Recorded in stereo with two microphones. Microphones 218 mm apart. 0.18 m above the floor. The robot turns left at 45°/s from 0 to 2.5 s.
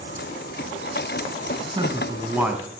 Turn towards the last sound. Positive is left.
turn(degrees=-170)